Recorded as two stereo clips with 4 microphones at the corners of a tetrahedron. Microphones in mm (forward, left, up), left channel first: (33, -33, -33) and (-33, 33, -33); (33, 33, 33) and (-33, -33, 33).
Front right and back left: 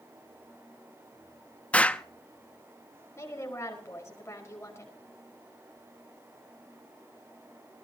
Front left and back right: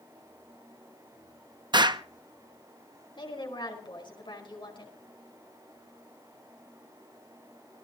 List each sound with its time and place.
1.7 s an explosion: 115° right, 0.7 m
3.2 s a woman speaking: 15° left, 4.5 m